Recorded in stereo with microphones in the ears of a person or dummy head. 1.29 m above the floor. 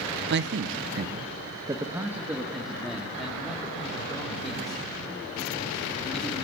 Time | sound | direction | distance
0.3 | a man speaking | 55° right (ahead or behind) | 1.1 m